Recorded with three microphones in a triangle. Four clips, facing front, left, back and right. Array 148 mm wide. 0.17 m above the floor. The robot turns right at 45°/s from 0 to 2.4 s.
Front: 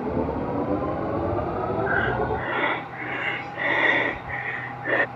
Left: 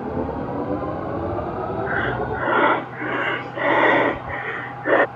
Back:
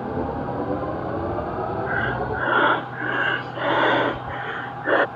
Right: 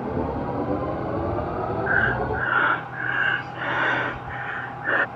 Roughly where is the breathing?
Left.